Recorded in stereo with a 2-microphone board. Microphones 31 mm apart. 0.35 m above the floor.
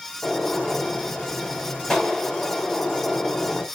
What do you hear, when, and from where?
0.2 s a gunshot: 15° left (ahead or behind), 1.7 m